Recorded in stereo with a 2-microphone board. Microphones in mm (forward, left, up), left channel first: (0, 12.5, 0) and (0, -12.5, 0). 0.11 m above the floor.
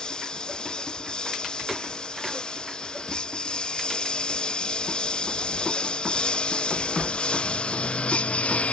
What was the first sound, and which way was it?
A lawn mower, 35° left (ahead or behind).